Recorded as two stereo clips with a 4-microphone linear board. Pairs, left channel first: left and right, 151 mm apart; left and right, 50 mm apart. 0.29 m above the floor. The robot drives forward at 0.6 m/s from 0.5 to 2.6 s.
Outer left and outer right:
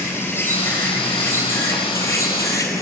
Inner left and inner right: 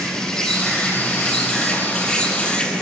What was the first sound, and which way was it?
An insect, 15° left (ahead or behind).